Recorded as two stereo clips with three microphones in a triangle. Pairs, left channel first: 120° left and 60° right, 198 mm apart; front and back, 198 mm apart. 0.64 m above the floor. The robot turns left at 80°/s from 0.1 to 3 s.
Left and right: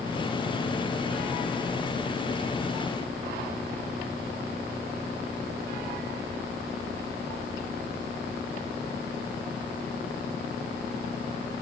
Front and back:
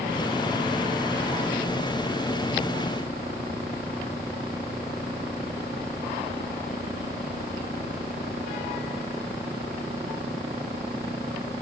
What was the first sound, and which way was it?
Only background noise.